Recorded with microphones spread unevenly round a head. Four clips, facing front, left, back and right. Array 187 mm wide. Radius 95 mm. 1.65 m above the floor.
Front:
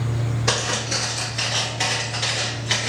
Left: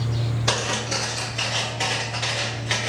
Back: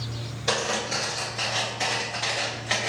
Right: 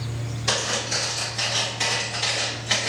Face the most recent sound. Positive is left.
turn(degrees=-175)